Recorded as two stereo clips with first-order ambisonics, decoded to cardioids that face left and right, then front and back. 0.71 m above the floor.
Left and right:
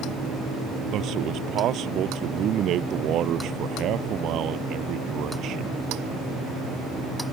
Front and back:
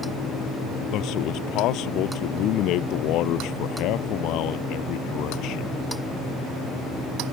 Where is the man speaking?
40° right.